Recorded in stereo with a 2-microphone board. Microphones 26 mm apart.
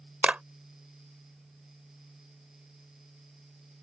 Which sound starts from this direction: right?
A clap, at 0.2 s.